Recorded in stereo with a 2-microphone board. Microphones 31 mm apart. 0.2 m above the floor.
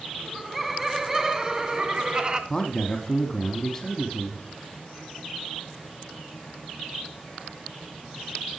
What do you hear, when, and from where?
0.2 s laughter: centre (ahead or behind), 2 m; by 2.4 s 35° right (ahead or behind), 1.9 m
2.5 s a man speaking: 20° left (ahead or behind), 1.3 m